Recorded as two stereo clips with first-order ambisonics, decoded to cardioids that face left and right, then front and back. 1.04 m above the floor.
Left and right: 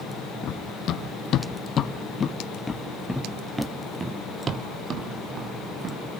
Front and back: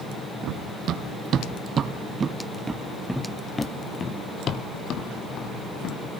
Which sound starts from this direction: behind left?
Running footsteps, at 0.4 s.